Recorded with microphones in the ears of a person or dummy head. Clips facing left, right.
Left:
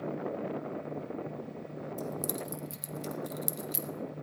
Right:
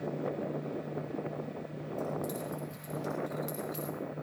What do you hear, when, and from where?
2.0 s keys jangling: 65° left (ahead or behind), 1.0 m